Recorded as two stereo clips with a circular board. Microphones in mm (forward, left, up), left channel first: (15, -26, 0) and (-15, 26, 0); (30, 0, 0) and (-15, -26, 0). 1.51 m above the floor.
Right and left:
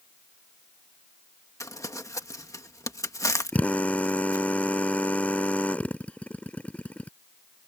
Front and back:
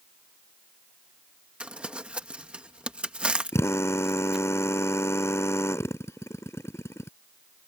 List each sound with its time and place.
1.6 s crumpling: 80° right
3.5 s a drill: 5° left